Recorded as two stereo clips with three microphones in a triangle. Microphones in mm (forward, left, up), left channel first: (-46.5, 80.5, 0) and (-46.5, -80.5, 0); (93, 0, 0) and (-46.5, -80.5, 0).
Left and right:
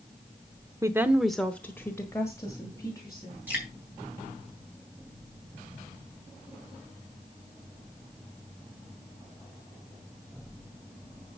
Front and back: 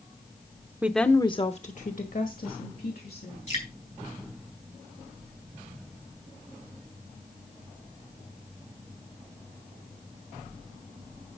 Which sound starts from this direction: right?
A woman speaking, at 0.8 s.